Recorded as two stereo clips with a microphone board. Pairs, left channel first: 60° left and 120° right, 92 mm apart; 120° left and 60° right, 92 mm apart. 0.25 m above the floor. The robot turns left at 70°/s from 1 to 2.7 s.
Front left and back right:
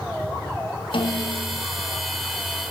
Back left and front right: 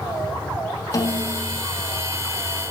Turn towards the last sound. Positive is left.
turn(degrees=-50)